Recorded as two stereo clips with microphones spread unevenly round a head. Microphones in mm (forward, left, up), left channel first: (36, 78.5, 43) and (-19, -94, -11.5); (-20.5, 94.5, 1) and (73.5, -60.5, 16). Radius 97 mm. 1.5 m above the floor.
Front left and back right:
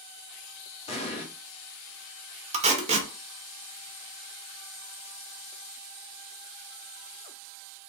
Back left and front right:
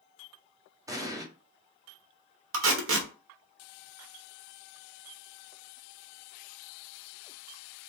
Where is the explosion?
15° left, 0.9 m.